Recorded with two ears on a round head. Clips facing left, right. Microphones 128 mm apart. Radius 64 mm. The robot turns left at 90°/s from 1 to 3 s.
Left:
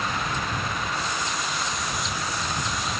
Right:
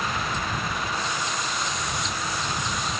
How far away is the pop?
I don't hear a pop.